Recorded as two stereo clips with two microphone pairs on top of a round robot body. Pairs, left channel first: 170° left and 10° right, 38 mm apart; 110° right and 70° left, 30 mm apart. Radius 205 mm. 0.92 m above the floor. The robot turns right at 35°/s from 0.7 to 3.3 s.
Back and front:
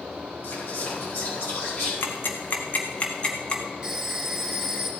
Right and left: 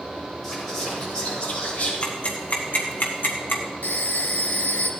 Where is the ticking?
170° right, 1.4 m; by 3.6 s 125° right, 1.4 m.